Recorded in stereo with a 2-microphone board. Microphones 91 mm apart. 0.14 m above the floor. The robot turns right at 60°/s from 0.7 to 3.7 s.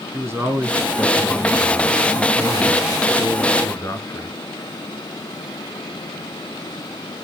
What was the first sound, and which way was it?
A man speaking, 60° right.